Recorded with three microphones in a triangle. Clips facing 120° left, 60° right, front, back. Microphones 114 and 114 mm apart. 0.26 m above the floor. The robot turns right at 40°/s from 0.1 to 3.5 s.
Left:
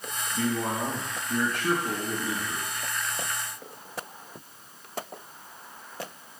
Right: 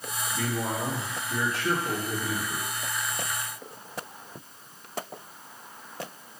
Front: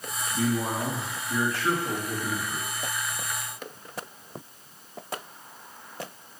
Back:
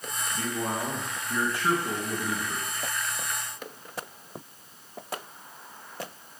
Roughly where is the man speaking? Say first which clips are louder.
Left 3 dB, front 4 dB; ahead left.